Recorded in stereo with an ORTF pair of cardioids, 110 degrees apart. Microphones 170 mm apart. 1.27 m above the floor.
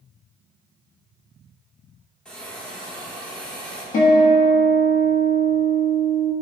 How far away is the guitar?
About 1.5 m.